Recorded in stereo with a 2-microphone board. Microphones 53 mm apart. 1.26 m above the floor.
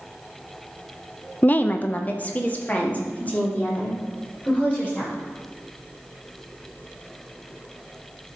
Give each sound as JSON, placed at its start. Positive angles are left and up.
{"t": 1.4, "sound": "a woman speaking", "side_deg": 35, "distance_m": 0.5}